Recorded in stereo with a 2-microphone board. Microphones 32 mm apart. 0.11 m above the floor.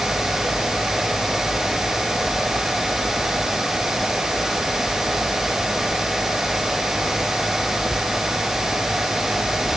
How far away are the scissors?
I don't hear scissors.